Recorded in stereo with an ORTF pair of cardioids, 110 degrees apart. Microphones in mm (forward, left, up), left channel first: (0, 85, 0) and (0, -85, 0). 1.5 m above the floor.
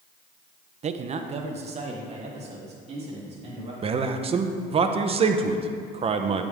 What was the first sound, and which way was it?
A man speaking, 40° right.